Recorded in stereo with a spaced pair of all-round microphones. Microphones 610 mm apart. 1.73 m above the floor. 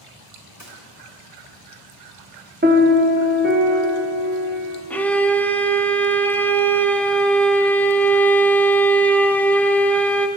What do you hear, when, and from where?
0.6 s a gunshot: 25° right (ahead or behind), 1.8 m
2.6 s a piano: 15° right (ahead or behind), 0.8 m
4.9 s a violin: 5° left (ahead or behind), 0.6 m